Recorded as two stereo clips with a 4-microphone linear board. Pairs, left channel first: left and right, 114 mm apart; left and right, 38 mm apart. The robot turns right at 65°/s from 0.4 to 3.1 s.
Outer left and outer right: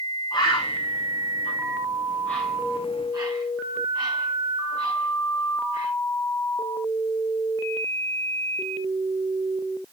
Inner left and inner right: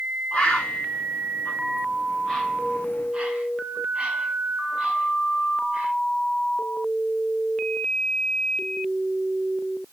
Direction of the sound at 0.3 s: 40° left (ahead or behind).